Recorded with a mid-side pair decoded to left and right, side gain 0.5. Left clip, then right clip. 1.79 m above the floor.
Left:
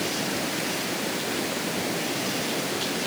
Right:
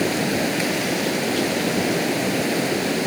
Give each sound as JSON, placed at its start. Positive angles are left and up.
{"t": 0.0, "sound": "running water", "azimuth_deg": -50}